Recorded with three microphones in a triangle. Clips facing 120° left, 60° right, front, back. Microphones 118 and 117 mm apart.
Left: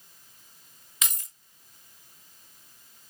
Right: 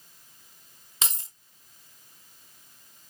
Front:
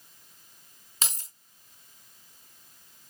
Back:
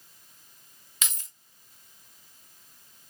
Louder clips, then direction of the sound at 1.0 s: Right 2 dB, front 2 dB; 25° right.